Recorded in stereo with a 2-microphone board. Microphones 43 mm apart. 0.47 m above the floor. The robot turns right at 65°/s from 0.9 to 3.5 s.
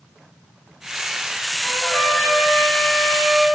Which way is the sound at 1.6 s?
90° left.